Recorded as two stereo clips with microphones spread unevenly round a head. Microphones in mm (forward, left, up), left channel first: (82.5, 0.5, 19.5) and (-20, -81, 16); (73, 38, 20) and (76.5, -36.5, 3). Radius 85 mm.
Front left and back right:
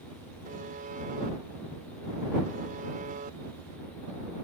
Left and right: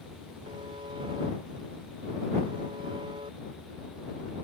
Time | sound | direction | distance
0.5 | a buzzer | 125° right | ?